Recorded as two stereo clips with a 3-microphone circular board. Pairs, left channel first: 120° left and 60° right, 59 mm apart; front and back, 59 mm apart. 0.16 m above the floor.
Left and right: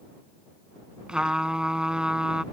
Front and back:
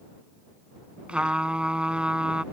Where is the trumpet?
125° right.